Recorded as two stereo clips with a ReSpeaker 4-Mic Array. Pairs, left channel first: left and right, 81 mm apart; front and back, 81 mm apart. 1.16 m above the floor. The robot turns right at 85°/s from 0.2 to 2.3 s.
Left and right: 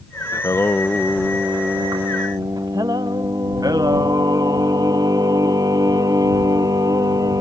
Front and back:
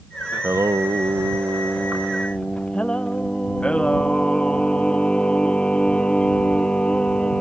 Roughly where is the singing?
Behind left.